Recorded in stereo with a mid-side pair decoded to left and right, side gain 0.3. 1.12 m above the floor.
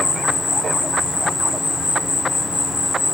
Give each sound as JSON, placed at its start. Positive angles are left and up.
{"t": 0.0, "sound": "an insect", "azimuth_deg": 55, "distance_m": 2.5}